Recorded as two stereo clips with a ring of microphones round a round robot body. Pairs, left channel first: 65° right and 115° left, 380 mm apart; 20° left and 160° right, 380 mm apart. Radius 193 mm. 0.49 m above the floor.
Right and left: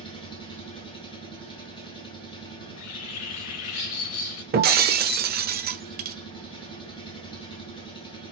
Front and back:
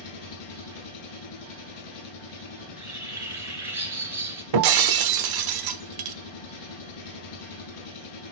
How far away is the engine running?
About 1.9 m.